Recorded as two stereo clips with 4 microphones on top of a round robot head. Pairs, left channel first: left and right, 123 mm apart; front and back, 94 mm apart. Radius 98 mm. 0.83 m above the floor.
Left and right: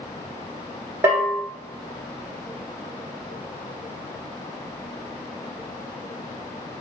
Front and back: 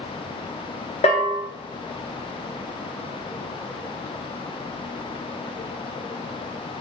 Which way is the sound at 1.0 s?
20° right.